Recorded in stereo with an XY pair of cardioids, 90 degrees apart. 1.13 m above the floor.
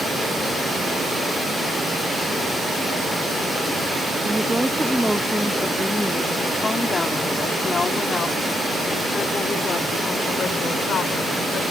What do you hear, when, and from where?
4.2 s a woman speaking: 10° right; by 11.6 s 70° left